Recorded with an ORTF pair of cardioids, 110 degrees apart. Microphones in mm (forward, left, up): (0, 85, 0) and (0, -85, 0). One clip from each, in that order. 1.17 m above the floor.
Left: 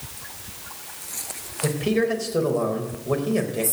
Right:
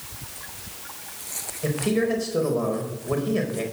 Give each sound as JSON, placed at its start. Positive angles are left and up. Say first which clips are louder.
{"t": 1.6, "sound": "a man speaking", "louder": "left 1 dB", "azimuth_deg": 10, "distance_m": 4.5}